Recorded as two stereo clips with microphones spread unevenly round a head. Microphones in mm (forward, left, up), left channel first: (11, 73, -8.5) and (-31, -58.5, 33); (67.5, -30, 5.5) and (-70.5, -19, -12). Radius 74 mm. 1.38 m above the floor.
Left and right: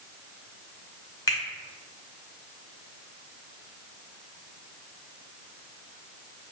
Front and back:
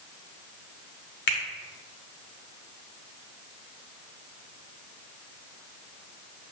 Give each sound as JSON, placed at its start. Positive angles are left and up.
{"t": 1.3, "sound": "a finger snap", "azimuth_deg": 5, "distance_m": 0.7}